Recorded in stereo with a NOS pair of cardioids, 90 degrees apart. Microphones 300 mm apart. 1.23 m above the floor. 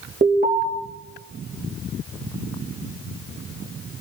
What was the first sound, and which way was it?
An alarm, 30° right.